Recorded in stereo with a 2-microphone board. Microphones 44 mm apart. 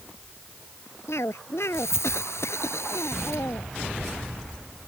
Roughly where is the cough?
Left.